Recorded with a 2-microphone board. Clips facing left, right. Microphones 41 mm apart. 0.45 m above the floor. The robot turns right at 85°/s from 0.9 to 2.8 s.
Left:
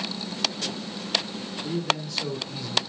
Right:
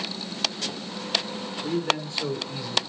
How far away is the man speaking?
About 1.5 m.